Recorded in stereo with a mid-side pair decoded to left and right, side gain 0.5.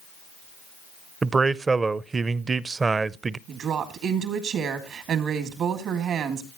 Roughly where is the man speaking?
Ahead right.